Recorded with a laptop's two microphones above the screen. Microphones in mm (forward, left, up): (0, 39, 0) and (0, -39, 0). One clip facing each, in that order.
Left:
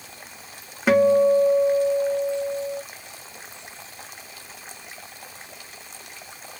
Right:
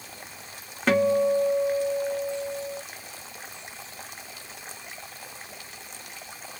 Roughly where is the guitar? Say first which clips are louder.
Left 5 dB; centre.